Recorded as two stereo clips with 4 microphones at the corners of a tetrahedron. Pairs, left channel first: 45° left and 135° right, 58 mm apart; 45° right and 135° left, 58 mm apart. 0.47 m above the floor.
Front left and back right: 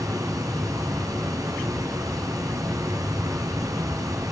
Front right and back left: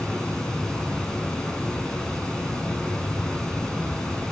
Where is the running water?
125° right, 4 m.